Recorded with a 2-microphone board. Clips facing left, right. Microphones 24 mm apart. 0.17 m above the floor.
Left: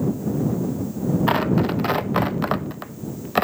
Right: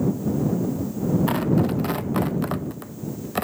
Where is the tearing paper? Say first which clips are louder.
Left 2 dB; 25° left (ahead or behind).